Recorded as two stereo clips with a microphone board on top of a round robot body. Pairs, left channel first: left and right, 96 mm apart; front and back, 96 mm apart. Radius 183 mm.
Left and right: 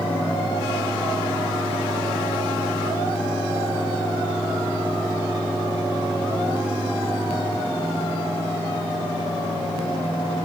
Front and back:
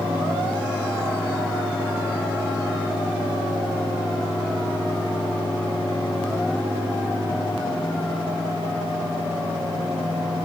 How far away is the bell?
I don't hear a bell.